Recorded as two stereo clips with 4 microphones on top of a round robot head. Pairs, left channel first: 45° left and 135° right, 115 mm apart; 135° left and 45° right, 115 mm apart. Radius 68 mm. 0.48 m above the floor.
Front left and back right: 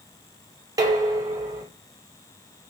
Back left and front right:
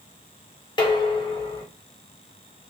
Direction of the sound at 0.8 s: 175° left.